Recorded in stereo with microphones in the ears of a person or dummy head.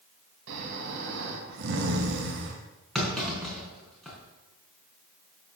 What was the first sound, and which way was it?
Snoring, 70° right (ahead or behind).